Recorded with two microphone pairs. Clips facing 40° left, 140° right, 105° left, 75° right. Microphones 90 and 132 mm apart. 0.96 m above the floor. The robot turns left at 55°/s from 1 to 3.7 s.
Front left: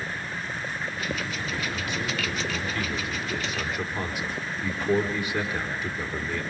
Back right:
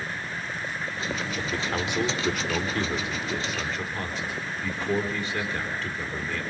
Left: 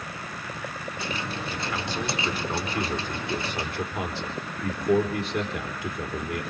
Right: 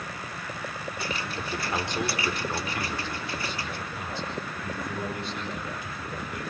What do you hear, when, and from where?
1.4 s a man speaking: 115° right, 3.5 m; by 6.4 s 115° left, 3.5 m